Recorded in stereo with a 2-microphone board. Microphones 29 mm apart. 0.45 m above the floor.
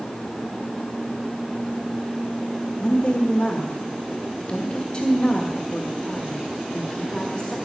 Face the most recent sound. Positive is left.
turn(degrees=30)  # may be behind; listen again after turning